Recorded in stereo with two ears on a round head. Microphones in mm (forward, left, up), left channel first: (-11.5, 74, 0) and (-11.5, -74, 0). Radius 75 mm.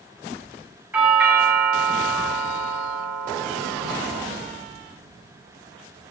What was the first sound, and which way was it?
A doorbell, 10° right (ahead or behind).